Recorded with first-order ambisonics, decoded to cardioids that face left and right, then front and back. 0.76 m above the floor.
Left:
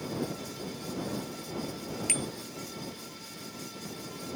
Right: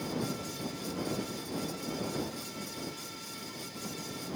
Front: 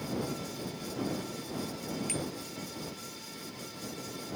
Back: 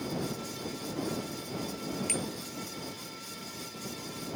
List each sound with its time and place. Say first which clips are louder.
2.1 s a bicycle bell: left 8 dB, back 2 dB; 100° left